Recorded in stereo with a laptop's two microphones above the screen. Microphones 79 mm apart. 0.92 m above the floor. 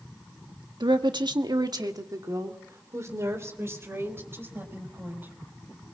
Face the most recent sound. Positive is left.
turn(degrees=-25)  # may be behind; listen again after turning